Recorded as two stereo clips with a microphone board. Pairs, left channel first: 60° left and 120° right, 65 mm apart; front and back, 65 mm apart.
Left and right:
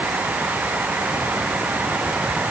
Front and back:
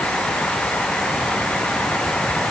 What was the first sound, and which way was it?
Only background noise.